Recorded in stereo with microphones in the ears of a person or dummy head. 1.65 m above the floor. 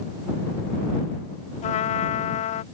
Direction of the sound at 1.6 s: 40° left (ahead or behind).